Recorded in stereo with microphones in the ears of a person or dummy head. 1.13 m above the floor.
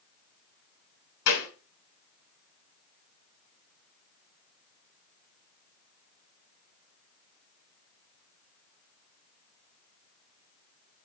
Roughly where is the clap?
Left.